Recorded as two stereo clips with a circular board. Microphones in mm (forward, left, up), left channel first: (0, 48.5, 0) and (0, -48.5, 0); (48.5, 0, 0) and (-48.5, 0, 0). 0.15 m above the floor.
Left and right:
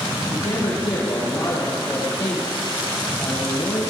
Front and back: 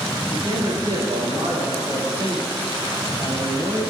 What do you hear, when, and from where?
0.2 s a man speaking: 130° left, 4.5 m